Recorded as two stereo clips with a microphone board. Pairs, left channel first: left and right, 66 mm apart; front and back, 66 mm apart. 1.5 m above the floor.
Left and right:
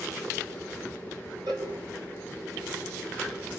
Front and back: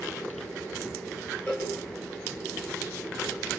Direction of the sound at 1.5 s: 70° right.